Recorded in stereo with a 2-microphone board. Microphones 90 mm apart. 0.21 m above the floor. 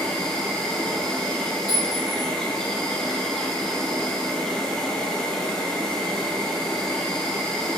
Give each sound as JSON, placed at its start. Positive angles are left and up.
{"t": 0.0, "sound": "an insect", "side_deg": 5, "distance_m": 0.9}
{"t": 1.7, "sound": "a clink", "side_deg": -55, "distance_m": 1.6}